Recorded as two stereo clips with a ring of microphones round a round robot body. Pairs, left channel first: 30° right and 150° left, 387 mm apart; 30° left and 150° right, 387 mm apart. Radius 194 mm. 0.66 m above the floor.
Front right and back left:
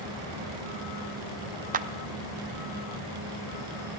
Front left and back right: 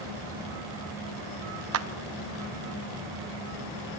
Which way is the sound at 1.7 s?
155° right.